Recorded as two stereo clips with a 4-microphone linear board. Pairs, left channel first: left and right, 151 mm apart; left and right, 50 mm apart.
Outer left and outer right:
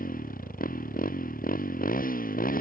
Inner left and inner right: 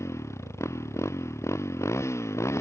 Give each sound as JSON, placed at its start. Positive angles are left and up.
{"t": 0.0, "sound": "a motorcycle", "side_deg": 60}